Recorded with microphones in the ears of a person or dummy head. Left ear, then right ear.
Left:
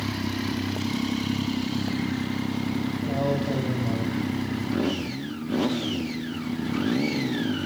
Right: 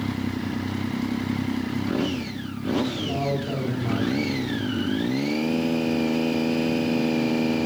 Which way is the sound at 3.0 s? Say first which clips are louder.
Even; centre (ahead or behind).